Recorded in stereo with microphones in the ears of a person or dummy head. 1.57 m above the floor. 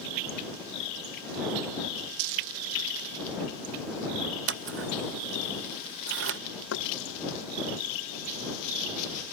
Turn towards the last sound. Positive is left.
turn(degrees=75)  # may be behind; listen again after turning